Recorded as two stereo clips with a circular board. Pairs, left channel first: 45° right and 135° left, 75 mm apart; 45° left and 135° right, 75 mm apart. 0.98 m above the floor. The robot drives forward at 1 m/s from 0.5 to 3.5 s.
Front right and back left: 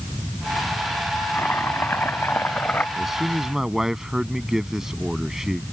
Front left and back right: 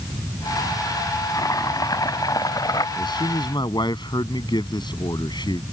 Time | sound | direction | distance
1.4 | chopping | 15° left | ?
3.0 | a man speaking | 50° left | ?